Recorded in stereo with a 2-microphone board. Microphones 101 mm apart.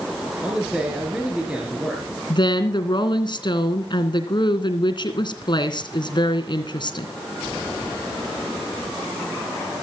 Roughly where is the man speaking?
Centre.